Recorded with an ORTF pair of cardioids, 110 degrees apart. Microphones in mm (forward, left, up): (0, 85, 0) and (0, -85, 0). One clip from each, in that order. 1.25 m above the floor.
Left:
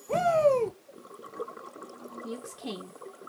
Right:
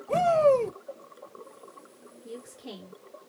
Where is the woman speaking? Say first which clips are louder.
Left 2 dB; 55° left, 1.1 m.